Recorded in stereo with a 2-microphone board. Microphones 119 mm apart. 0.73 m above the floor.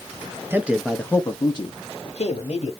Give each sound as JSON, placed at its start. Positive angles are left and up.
{"t": 0.5, "sound": "a man speaking", "side_deg": -20, "distance_m": 0.5}